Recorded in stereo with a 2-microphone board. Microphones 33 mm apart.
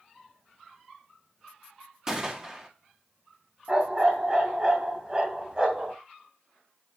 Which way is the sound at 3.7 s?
25° right (ahead or behind).